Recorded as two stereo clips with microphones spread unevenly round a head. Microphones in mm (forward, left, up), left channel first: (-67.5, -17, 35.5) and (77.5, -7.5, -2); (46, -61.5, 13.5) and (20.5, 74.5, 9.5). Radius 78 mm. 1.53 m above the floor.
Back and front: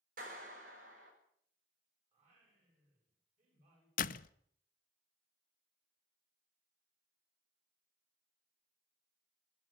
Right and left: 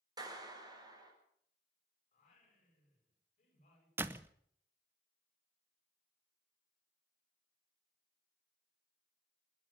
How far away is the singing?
About 10 m.